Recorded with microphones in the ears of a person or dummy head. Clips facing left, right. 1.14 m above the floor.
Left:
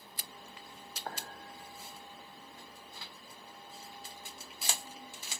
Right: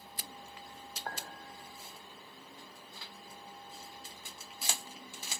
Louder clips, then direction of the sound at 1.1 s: Even; 5° left (ahead or behind).